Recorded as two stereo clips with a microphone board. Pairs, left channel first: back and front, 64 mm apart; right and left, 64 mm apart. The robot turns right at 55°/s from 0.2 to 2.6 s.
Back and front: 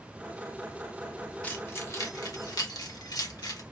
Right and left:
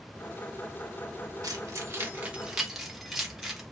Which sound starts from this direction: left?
Keys jangling, at 1.4 s.